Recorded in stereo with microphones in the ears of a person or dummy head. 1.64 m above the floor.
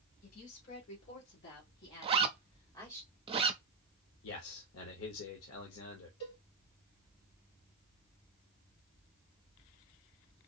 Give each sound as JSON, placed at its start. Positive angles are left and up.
{"t": 0.2, "sound": "a woman speaking", "side_deg": 85, "distance_m": 2.5}
{"t": 2.0, "sound": "a zipper", "side_deg": -35, "distance_m": 0.6}
{"t": 4.2, "sound": "a man speaking", "side_deg": 85, "distance_m": 0.9}
{"t": 6.2, "sound": "a cowbell", "side_deg": 50, "distance_m": 2.5}